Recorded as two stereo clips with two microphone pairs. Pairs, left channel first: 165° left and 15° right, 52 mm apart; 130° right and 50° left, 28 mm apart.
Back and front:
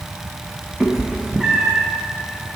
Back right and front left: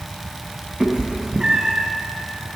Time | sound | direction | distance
0.8 | a cat meowing | 50° left | 0.8 m